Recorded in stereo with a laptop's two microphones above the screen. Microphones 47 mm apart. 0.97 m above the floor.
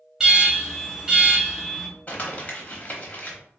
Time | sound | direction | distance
0.2 | an alarm | 10° right (ahead or behind) | 1.3 m
2.1 | crumpling | 30° left (ahead or behind) | 0.9 m